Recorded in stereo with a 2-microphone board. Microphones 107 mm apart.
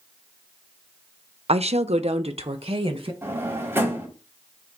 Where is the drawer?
25° right (ahead or behind), 2.5 m.